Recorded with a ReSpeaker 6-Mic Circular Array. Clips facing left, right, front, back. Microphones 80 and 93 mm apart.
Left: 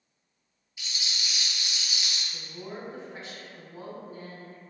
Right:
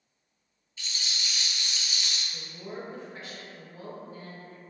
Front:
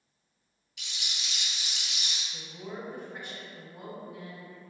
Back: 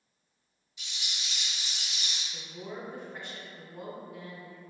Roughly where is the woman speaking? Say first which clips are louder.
Even, even; ahead left.